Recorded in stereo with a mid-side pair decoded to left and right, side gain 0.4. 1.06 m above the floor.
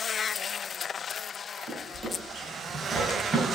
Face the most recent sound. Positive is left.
turn(degrees=-40)